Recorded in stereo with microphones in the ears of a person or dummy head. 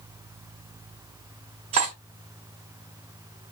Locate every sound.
1.7 s cutlery clinking: 30° right (ahead or behind), 1.2 m